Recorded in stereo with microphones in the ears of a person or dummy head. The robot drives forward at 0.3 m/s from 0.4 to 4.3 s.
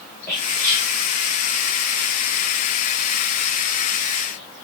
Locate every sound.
0.3 s whispering: 15° left (ahead or behind), 3.5 m